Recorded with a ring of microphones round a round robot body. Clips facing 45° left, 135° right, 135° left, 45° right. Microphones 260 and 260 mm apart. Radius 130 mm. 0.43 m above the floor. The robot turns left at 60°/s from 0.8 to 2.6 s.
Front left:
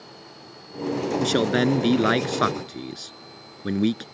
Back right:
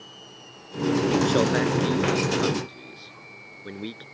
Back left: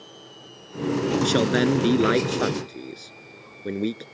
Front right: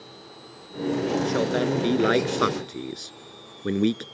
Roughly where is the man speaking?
Left.